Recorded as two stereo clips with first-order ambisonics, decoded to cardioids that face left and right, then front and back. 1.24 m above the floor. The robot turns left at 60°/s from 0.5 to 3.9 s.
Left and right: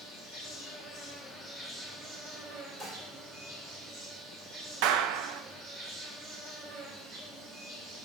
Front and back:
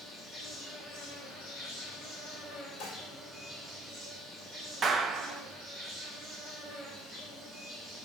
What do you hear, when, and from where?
0.0 s an insect: 75° left, 4 m; by 8.1 s 130° right, 4 m
2.8 s dishes clattering: 35° right, 2.5 m; by 3.0 s 45° right, 2.5 m
4.8 s a clap: 115° right, 0.5 m